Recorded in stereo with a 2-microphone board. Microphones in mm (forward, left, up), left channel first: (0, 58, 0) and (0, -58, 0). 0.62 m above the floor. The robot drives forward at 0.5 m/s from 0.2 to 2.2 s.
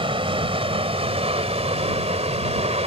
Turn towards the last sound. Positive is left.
turn(degrees=-65)  # may be behind; listen again after turning